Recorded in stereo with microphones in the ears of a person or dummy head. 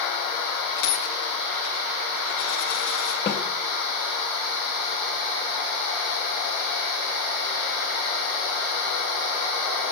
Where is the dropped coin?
85° left, 8 m.